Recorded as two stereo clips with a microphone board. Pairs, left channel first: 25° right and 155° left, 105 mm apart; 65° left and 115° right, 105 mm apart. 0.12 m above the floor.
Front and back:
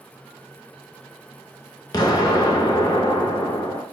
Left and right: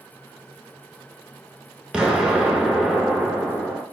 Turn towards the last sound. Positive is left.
turn(degrees=-35)